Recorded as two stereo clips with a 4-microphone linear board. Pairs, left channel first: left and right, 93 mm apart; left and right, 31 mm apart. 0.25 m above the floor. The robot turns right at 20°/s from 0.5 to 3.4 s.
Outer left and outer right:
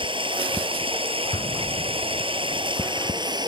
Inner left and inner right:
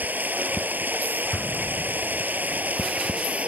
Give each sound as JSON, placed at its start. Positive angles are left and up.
{"t": 0.0, "sound": "running water", "azimuth_deg": -110}
{"t": 1.3, "sound": "an explosion", "side_deg": 70}